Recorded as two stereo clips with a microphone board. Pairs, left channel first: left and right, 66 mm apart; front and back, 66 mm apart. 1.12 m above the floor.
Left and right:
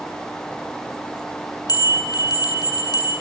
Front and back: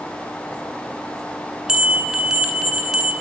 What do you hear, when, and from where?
1.7 s a bell: 100° left, 9.5 m